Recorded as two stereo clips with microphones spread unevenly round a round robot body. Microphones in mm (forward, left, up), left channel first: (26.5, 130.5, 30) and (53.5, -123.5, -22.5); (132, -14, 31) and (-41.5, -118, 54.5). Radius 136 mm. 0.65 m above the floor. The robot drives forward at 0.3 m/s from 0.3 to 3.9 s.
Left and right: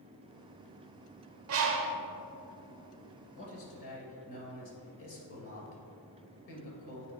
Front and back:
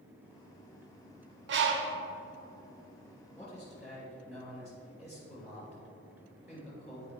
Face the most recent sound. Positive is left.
turn(degrees=130)